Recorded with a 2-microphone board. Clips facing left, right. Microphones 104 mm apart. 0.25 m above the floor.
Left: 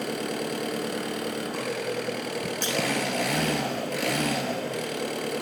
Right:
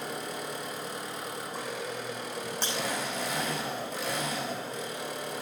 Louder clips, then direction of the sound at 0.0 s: Left 7 dB; 75° left (ahead or behind).